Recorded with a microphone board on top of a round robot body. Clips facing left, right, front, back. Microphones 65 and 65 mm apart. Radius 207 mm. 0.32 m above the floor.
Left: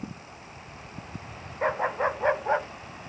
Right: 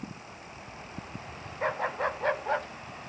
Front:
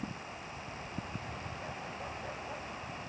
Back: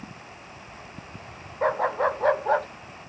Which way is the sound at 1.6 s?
165° left.